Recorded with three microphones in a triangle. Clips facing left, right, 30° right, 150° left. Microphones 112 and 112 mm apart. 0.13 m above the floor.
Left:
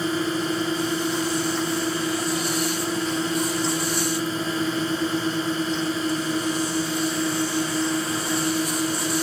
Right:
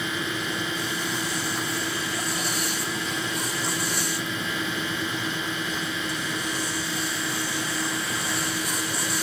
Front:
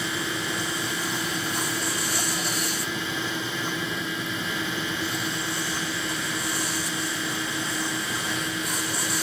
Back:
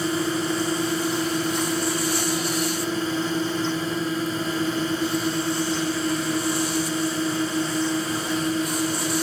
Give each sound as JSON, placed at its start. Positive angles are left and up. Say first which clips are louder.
{"t": 0.0, "sound": "a drone", "louder": "left 6 dB, back 7 dB", "azimuth_deg": 120}